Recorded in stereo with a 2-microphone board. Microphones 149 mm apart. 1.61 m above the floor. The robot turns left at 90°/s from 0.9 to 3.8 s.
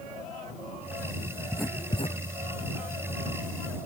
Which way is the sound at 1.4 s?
20° right (ahead or behind).